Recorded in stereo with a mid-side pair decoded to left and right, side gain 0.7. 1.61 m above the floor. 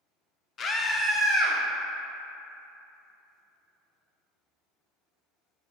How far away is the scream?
About 0.6 m.